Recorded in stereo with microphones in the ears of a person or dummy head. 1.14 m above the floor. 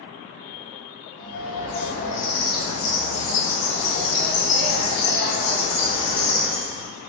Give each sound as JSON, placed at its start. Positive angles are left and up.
{"t": 1.2, "sound": "a bird", "side_deg": 65, "distance_m": 1.3}